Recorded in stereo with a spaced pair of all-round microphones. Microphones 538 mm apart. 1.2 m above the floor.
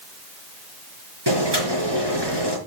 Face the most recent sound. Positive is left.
turn(degrees=-50)  # may be behind; listen again after turning